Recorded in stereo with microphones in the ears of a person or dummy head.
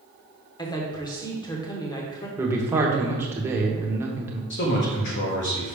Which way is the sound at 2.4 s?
15° right (ahead or behind).